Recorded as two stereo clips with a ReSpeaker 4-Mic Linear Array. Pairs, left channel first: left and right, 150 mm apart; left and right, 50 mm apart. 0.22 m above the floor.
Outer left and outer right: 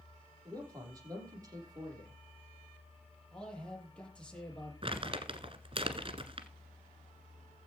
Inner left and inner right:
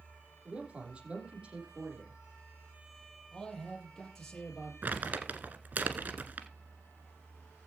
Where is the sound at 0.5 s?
25° right (ahead or behind), 7 m.